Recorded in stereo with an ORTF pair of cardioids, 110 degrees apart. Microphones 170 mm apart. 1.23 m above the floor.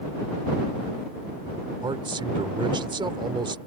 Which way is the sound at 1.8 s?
30° right.